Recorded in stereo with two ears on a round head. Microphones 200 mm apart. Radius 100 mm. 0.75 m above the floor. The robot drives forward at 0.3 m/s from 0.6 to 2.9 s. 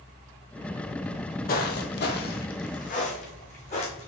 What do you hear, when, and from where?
1.1 s footsteps: 25° left (ahead or behind), 1.2 m; by 4.1 s 30° left (ahead or behind), 2.5 m